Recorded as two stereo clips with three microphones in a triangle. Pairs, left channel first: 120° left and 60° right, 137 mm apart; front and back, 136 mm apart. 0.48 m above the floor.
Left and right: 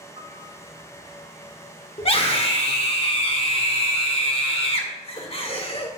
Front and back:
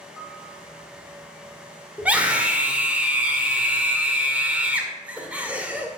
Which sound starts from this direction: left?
A scream, at 2.0 s.